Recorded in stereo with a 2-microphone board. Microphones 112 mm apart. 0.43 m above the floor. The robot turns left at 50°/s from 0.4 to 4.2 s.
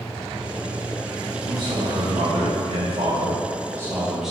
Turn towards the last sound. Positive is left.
turn(degrees=-170)